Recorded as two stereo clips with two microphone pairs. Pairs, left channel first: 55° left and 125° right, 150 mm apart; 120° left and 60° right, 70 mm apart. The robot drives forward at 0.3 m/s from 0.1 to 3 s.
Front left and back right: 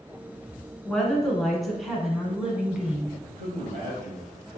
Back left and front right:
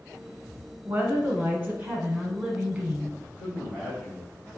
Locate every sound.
0.8 s a woman speaking: 25° right, 1.4 m; by 3.1 s 65° right, 1.2 m
3.2 s a man speaking: 130° right, 2.0 m